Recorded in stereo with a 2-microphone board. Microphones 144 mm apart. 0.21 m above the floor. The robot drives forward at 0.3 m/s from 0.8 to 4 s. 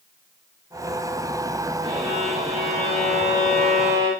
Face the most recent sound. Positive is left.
turn(degrees=-40)  # may be behind; listen again after turning